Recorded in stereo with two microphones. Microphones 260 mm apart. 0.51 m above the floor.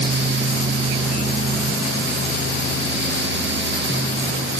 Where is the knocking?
No knocking in this recording.